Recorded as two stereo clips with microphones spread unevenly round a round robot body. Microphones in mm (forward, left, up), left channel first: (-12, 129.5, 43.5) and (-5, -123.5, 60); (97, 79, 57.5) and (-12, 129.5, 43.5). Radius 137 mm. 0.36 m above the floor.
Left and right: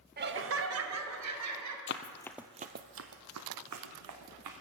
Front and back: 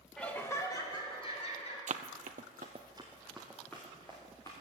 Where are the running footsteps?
140° left, 0.8 m; by 4.5 s 105° right, 2.5 m.